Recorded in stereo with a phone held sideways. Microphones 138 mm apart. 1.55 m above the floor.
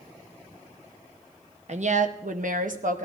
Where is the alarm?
No alarm in this recording.